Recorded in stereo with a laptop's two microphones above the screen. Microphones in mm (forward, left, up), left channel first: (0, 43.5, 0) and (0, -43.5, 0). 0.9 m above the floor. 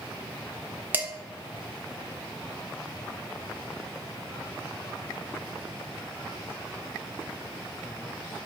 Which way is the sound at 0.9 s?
20° right (ahead or behind).